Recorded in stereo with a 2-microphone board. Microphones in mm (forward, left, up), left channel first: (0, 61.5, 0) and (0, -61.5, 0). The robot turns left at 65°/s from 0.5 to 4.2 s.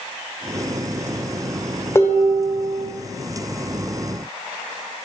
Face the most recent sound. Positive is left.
turn(degrees=-125)